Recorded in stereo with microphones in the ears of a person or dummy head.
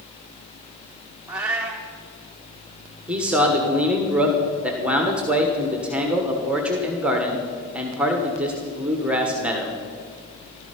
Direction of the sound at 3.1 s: 10° right (ahead or behind).